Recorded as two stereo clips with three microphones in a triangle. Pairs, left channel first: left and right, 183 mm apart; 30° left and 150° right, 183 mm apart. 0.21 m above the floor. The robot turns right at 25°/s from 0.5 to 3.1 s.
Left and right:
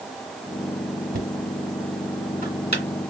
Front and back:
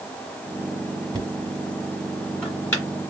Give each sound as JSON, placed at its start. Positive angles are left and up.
{"t": 1.1, "sound": "knocking", "azimuth_deg": -85, "distance_m": 2.0}